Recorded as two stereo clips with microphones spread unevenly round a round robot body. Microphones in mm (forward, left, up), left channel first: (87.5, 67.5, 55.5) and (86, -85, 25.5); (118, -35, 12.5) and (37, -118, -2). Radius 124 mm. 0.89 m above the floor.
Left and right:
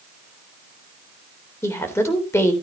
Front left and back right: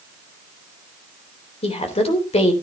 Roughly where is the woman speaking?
Ahead.